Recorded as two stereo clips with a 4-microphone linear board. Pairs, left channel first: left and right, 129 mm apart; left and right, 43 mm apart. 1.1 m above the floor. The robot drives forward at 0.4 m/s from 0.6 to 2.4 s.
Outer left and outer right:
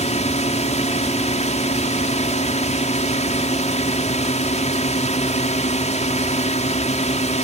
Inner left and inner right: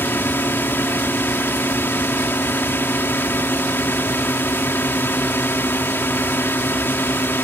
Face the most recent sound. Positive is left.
turn(degrees=60)  # may be behind; listen again after turning